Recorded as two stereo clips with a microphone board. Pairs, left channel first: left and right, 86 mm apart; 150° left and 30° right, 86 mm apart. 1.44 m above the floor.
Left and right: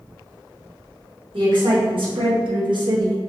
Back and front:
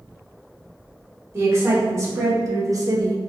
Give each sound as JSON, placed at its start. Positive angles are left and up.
{"t": 1.3, "sound": "a woman speaking", "azimuth_deg": -90, "distance_m": 1.7}